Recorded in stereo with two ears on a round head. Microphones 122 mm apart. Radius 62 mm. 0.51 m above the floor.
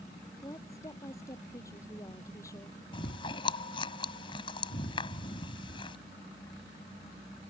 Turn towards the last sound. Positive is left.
turn(degrees=40)  # may be behind; listen again after turning